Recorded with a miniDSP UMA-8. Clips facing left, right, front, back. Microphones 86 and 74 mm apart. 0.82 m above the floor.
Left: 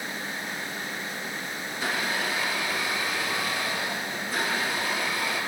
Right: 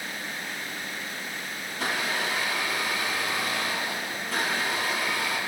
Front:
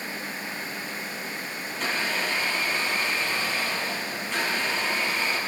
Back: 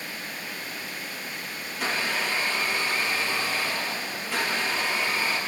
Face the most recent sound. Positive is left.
turn(degrees=-95)